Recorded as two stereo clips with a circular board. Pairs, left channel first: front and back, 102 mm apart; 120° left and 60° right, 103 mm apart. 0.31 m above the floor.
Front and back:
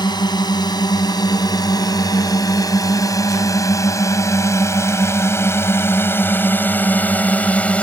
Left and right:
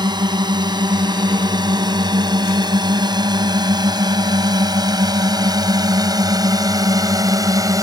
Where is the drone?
30° right; by 7.8 s 70° right.